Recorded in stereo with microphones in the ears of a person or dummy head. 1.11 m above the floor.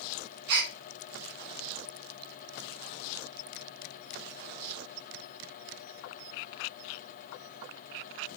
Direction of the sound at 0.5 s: 55° right (ahead or behind).